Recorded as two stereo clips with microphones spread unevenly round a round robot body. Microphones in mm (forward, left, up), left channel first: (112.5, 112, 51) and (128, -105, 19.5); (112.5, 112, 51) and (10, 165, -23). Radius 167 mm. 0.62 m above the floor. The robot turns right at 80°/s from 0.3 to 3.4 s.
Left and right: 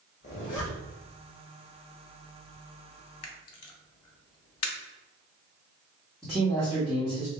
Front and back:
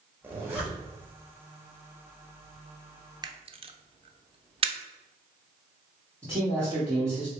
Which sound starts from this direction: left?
A camera shutter, at 3.2 s.